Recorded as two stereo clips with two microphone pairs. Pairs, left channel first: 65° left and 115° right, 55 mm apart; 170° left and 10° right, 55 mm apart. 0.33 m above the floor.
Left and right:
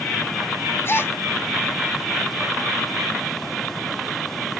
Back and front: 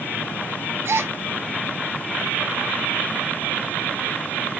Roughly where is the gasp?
Ahead left.